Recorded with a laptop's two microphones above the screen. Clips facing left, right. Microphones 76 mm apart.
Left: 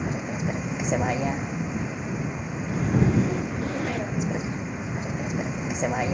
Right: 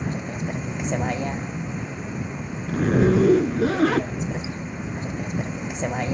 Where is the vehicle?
5° left (ahead or behind).